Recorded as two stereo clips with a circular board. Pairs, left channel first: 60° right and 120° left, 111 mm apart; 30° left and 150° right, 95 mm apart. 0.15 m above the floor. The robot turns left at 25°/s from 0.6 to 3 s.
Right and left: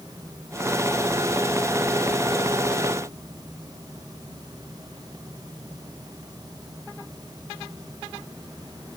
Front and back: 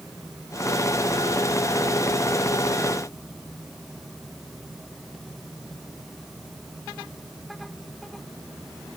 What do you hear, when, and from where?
Only background noise.